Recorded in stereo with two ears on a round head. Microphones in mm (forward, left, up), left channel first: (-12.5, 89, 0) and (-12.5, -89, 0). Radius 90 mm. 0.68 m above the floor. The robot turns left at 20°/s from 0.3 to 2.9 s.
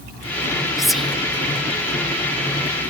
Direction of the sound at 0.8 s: Centre (ahead or behind).